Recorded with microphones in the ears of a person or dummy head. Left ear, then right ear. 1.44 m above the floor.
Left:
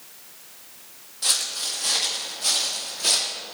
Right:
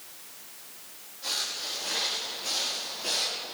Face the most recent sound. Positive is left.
turn(degrees=65)  # may be behind; listen again after turning